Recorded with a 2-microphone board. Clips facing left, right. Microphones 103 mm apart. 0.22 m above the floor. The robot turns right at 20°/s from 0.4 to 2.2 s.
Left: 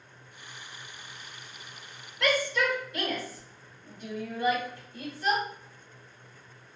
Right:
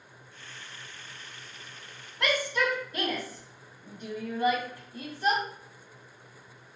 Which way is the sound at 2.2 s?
30° right (ahead or behind).